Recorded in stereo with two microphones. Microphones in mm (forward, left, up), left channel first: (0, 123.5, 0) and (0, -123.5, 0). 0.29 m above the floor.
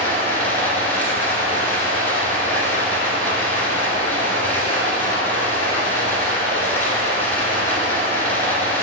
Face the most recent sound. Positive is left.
turn(degrees=10)  # may be behind; listen again after turning